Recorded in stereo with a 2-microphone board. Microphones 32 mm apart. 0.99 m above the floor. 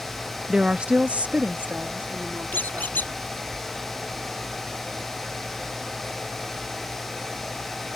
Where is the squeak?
70° left (ahead or behind).